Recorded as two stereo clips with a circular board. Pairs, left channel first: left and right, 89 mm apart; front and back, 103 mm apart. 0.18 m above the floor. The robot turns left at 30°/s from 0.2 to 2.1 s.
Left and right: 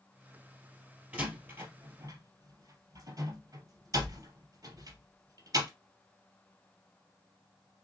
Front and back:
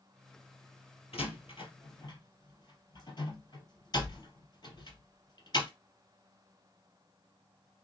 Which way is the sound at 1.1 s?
15° right.